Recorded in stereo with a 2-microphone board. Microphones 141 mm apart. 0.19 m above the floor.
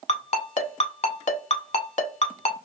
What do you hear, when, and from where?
0.1 s a ringtone: 50° left (ahead or behind), 0.6 m